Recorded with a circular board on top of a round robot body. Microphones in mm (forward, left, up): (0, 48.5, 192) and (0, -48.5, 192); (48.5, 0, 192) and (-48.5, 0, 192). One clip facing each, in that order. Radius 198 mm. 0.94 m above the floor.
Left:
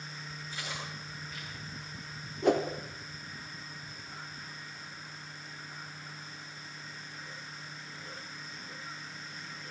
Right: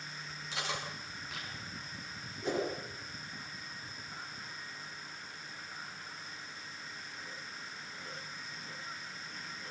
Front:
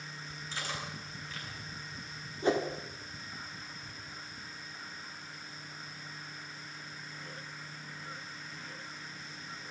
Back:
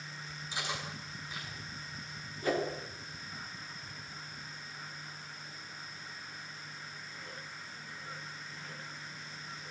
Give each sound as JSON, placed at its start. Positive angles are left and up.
{"t": 0.5, "sound": "cutlery clinking", "azimuth_deg": -105, "distance_m": 9.0}
{"t": 2.4, "sound": "a whoosh", "azimuth_deg": 65, "distance_m": 4.0}